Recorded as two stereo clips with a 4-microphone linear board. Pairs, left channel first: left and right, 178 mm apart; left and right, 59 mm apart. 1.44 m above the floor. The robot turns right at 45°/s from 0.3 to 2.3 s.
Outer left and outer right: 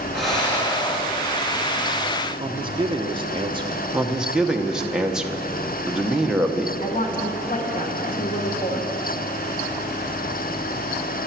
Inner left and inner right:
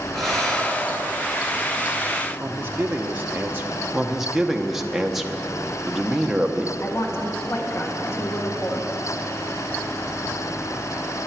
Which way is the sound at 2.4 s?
30° right (ahead or behind).